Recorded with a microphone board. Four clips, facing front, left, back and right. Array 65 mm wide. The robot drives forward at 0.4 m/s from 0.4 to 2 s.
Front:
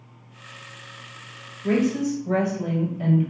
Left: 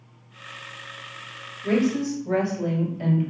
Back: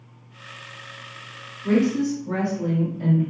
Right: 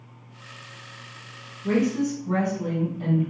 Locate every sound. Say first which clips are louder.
1.6 s a woman speaking: left 1 dB, back 1 dB; 70° left, 1.8 m; by 3.3 s 80° left, 1.8 m